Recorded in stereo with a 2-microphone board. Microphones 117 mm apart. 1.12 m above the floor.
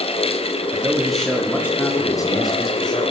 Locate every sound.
0.7 s a man speaking: 15° right (ahead or behind), 1.9 m; by 3.0 s 40° left (ahead or behind), 3.5 m